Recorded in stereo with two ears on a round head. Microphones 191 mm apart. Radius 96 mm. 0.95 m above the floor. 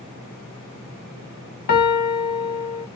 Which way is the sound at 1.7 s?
45° left (ahead or behind).